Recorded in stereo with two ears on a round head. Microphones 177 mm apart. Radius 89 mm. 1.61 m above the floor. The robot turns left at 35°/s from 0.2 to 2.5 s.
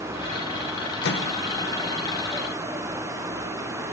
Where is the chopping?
I don't hear chopping.